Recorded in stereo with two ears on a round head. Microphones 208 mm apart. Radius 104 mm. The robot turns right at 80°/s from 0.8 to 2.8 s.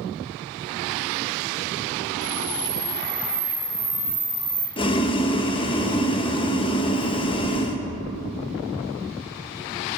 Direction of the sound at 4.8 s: 25° left (ahead or behind).